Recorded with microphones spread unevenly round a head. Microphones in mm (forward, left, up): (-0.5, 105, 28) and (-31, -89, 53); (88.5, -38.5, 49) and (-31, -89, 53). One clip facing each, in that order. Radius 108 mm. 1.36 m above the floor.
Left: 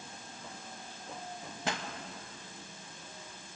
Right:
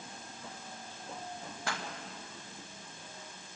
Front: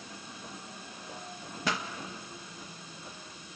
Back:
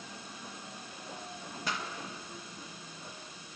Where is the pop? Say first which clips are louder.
Left 3 dB, front 5 dB; 10° left, 1.9 m.